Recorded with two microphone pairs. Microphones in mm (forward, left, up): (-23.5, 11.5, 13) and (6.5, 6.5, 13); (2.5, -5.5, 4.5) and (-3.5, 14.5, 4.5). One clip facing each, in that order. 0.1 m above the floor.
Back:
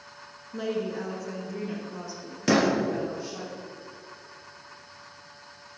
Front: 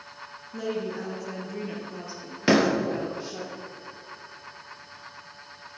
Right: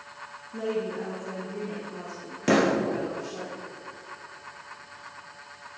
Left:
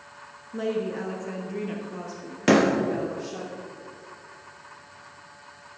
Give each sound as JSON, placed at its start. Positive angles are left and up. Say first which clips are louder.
{"t": 0.5, "sound": "a woman speaking", "louder": "back 1 dB, left 2 dB", "azimuth_deg": 115, "distance_m": 1.4}
{"t": 2.5, "sound": "a door slam", "louder": "front 2 dB, left 3 dB", "azimuth_deg": 50, "distance_m": 2.0}